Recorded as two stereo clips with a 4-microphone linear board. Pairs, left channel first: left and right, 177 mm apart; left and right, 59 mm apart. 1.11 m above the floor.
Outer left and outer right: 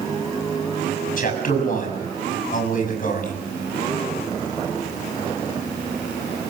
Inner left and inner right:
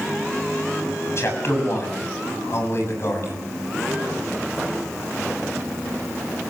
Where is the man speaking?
50° left (ahead or behind), 6 m.